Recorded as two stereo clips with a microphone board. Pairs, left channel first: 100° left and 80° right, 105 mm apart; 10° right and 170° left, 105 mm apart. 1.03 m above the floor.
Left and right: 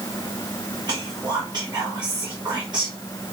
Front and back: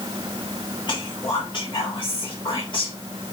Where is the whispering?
45° right, 0.8 m.